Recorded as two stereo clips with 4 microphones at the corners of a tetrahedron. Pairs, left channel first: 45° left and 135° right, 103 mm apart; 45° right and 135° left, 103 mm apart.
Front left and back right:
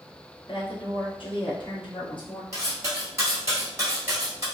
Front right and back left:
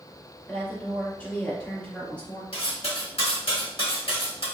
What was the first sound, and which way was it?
A woman speaking, 30° left.